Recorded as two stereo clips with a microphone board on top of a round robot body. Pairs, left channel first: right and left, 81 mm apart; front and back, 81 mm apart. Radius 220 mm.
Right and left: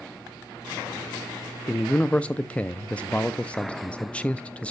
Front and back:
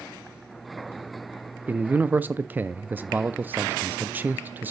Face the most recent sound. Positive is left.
turn(degrees=-145)